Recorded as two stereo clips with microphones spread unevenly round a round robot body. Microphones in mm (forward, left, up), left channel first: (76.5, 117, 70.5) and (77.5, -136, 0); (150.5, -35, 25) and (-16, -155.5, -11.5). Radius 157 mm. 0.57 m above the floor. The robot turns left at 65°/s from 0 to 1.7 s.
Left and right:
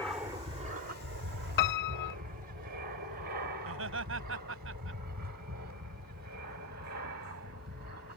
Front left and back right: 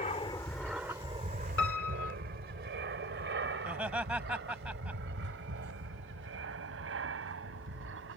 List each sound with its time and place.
0.0 s an aircraft: 5° right; by 8.2 s 140° right
1.6 s a piano: 90° left; by 2.2 s 85° left
3.6 s laughter: 60° right